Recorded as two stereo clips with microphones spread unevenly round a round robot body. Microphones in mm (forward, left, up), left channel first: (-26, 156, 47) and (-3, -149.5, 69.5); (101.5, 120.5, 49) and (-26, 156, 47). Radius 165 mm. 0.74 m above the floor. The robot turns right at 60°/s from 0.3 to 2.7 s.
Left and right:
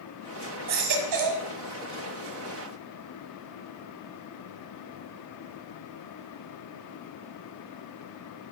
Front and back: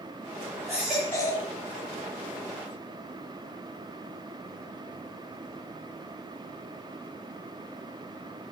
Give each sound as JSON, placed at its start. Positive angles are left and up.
{"t": 0.7, "sound": "a baby crying", "azimuth_deg": -120, "distance_m": 1.5}